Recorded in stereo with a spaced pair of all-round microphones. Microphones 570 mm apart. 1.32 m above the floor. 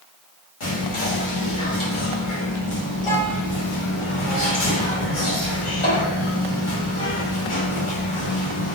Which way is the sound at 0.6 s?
60° left (ahead or behind).